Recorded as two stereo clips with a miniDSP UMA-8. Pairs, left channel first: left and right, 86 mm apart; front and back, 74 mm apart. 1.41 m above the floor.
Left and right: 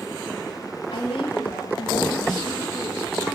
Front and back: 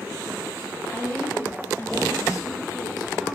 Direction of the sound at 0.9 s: 70° left.